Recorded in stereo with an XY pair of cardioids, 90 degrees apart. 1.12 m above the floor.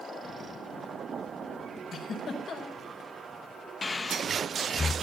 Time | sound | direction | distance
1.9 | a giggle | 65° left | 4 m
3.8 | breathing | 35° left | 0.8 m